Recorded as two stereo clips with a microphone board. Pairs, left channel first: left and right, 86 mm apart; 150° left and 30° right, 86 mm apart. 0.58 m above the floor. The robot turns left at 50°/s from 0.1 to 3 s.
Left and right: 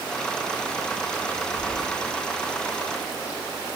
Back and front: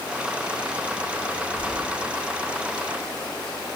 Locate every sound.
1.5 s keys jangling: 35° right, 3.5 m; by 1.8 s 45° right, 3.5 m